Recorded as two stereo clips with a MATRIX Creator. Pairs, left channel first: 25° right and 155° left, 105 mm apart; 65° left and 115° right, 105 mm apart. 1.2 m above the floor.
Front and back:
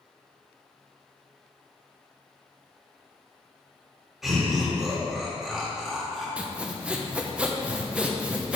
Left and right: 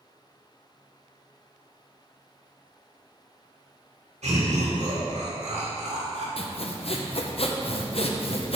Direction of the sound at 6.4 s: 80° left.